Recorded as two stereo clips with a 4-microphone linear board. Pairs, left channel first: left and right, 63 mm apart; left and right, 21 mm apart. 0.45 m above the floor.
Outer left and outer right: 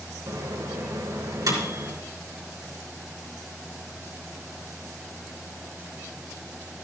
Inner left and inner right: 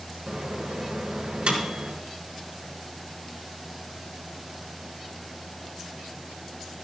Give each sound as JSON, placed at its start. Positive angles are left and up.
{"t": 0.3, "sound": "a microwave", "side_deg": -75, "distance_m": 3.5}